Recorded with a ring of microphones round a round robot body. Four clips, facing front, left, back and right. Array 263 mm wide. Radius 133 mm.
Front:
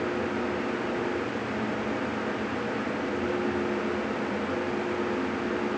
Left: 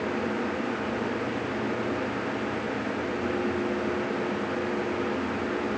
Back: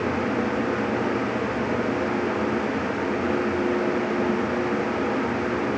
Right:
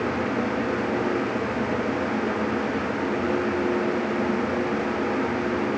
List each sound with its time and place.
Only background noise.